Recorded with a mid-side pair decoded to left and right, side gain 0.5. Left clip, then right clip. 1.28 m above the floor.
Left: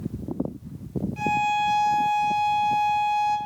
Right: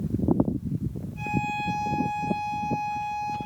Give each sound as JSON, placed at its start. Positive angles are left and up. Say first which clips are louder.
{"t": 1.2, "sound": "a violin", "louder": "left 6 dB", "azimuth_deg": 65, "distance_m": 3.0}